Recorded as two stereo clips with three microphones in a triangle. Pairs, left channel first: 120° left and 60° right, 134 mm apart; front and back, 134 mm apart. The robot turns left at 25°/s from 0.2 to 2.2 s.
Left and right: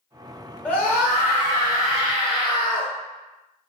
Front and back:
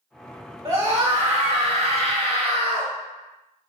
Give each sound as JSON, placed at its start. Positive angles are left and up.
{"t": 0.7, "sound": "a scream", "azimuth_deg": -165, "distance_m": 1.9}